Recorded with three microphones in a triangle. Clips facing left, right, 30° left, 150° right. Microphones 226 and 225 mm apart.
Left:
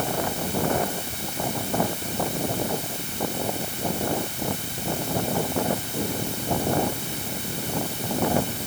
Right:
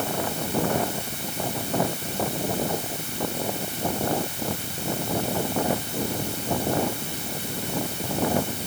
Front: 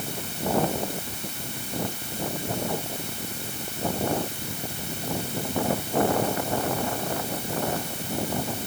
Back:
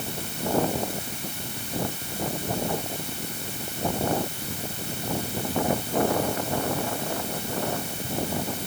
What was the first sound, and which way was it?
Only background noise.